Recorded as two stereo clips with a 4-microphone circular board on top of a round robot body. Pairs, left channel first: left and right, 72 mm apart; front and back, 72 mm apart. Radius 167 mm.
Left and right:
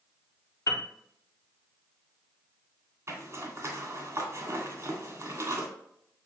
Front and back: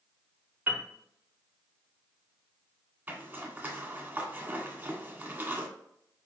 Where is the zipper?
125° right, 2 m.